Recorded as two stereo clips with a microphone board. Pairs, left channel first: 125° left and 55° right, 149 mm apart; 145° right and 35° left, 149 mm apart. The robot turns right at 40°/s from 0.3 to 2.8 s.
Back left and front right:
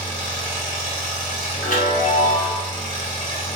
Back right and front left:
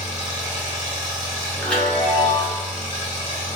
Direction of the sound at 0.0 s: 55° left.